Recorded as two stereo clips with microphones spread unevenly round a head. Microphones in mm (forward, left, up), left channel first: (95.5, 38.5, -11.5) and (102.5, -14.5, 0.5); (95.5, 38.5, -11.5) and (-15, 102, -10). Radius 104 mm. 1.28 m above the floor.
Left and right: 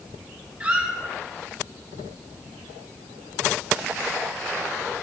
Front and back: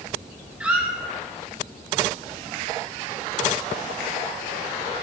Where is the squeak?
130° right, 0.6 m.